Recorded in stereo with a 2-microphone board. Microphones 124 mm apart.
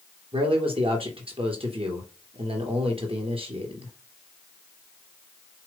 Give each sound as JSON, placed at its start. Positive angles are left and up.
{"t": 0.3, "sound": "a man speaking", "side_deg": -45, "distance_m": 2.5}